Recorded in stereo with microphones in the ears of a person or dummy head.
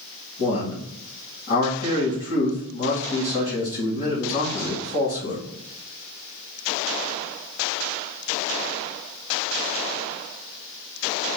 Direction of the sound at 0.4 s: 30° left (ahead or behind).